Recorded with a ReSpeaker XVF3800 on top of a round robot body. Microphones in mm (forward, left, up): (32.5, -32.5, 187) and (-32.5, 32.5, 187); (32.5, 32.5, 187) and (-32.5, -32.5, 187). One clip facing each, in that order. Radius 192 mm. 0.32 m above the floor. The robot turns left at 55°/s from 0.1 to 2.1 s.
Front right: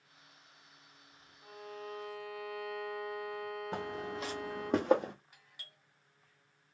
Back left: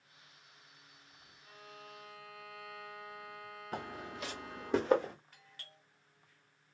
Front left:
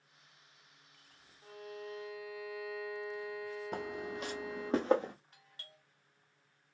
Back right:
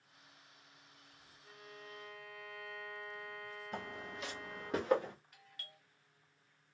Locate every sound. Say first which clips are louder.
1.4 s a violin: front right 8 dB, front left 9 dB; 5° left, 0.9 m; by 4.7 s 35° right, 0.9 m
3.7 s footsteps: even, front left 3 dB; 20° left, 1.2 m; by 5.1 s 20° right, 1.3 m
5.3 s a doorbell: back left 1 dB, back right 1 dB; 20° left, 2.5 m